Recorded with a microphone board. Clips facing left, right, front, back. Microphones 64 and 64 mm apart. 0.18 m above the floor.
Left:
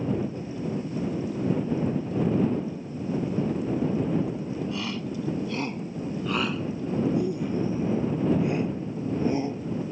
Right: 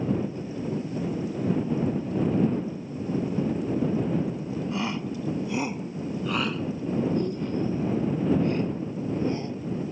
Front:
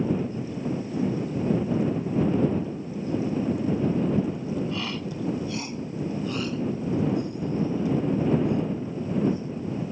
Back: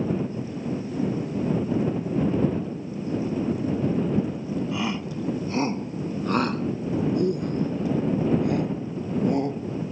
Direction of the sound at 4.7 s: 120° right.